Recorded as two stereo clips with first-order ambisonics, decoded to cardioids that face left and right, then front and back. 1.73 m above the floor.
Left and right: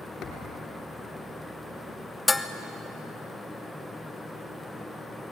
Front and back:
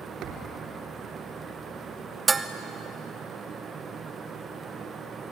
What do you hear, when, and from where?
0.2 s a thud: 140° left, 3.5 m
2.3 s dishes clattering: 140° left, 0.7 m